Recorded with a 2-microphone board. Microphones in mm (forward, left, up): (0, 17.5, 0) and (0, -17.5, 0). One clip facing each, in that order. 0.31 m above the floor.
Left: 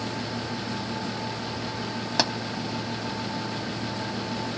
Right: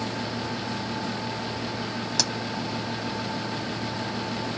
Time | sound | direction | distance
2.2 | a pop | 30° left (ahead or behind) | ?